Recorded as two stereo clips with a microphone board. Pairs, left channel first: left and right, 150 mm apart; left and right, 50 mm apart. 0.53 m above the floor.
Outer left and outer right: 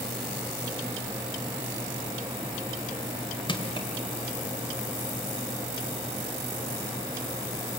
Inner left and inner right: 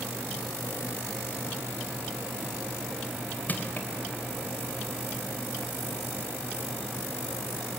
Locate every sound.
3.5 s crushing: 35° left (ahead or behind), 2 m